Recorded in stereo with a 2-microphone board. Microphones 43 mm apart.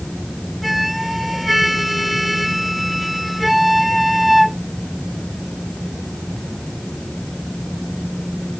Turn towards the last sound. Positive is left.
turn(degrees=0)  # may be behind; listen again after turning